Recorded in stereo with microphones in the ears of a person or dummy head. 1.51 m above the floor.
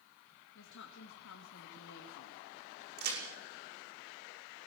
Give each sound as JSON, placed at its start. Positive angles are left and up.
{"t": 0.6, "sound": "a woman speaking", "side_deg": 75, "distance_m": 2.5}
{"t": 3.0, "sound": "a crack", "side_deg": -55, "distance_m": 5.5}